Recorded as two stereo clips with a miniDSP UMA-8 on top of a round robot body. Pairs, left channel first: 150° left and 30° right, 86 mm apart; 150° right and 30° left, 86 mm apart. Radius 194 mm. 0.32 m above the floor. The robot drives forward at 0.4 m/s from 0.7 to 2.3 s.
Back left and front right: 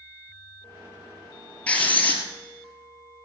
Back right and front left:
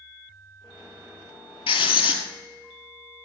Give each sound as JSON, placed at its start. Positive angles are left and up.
{"t": 1.7, "sound": "writing", "azimuth_deg": -135, "distance_m": 1.9}